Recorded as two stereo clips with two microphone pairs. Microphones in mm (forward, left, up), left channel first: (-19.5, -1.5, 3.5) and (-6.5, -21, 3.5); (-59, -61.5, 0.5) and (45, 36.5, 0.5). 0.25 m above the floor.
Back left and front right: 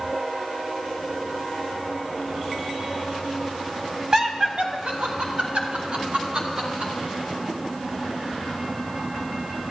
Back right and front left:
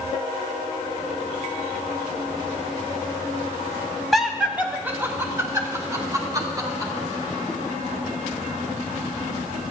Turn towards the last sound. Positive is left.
turn(degrees=-20)